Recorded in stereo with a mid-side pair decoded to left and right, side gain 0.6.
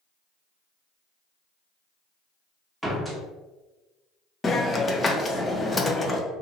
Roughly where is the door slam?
Ahead.